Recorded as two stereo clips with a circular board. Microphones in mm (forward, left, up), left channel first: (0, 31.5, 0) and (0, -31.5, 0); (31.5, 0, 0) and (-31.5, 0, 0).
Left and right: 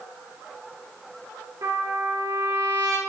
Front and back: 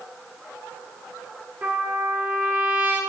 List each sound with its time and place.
1.6 s a trumpet: 120° right, 2 m